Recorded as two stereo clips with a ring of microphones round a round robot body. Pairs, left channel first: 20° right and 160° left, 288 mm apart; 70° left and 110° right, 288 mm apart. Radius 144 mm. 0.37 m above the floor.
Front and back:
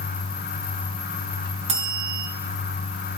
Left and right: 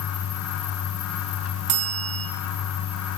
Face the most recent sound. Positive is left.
turn(degrees=-135)